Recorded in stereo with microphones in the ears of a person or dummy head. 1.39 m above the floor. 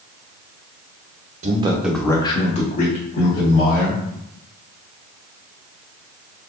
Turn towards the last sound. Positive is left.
turn(degrees=60)  # may be behind; listen again after turning